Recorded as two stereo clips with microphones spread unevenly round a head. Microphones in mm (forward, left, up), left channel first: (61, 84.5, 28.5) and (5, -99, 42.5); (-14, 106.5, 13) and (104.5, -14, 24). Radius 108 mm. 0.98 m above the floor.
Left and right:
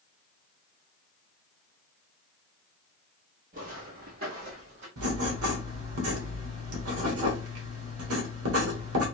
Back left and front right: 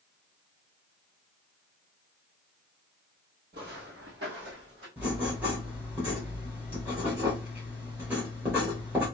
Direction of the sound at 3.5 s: 70° right.